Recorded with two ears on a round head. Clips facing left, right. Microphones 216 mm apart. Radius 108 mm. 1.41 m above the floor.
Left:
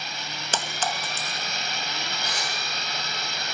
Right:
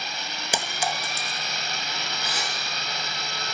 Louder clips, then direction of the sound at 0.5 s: Right 1 dB; 10° right (ahead or behind).